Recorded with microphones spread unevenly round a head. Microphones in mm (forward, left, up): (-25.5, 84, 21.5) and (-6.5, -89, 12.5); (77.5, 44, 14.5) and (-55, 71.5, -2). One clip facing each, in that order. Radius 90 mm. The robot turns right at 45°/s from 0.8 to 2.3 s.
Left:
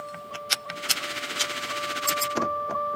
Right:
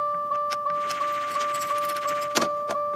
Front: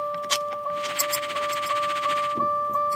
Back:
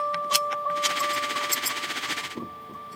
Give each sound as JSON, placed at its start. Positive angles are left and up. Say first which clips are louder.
{"t": 0.0, "sound": "a vehicle", "louder": "right 9 dB, even", "azimuth_deg": -90}